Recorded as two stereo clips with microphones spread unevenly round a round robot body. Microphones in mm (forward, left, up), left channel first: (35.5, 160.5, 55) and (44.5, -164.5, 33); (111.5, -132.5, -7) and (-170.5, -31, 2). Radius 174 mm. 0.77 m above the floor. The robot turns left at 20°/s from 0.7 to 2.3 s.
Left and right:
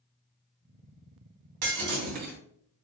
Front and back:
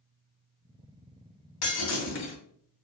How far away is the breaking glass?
About 2.5 m.